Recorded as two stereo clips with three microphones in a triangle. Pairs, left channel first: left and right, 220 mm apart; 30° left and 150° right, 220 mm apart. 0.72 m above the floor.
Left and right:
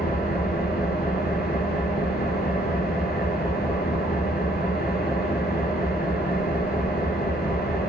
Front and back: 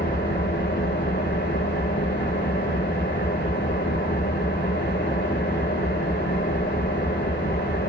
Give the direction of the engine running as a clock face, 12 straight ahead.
10 o'clock.